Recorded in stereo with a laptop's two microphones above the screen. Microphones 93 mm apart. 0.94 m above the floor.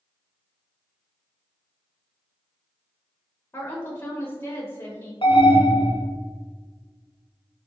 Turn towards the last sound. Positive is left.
turn(degrees=65)  # may be behind; listen again after turning